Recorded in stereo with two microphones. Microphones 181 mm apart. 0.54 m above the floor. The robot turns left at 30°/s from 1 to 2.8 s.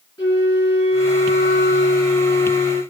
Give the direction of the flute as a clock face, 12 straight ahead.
7 o'clock.